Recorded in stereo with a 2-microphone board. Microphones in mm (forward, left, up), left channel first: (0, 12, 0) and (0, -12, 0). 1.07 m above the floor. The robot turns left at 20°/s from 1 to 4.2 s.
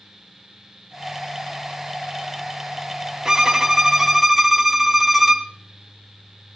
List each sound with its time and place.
3.2 s a violin: 20° right (ahead or behind), 1.1 m; by 5.5 s 5° right (ahead or behind), 1.1 m